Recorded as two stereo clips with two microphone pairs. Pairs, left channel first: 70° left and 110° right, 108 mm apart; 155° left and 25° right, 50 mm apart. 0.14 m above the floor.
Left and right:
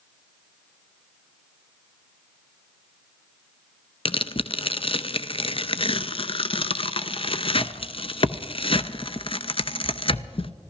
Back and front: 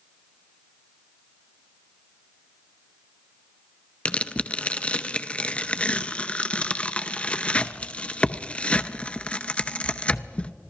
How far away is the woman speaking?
I don't hear a woman speaking.